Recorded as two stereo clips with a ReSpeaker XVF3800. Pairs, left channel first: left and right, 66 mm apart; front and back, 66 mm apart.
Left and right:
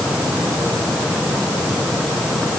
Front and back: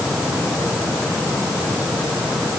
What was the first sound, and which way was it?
Only background noise.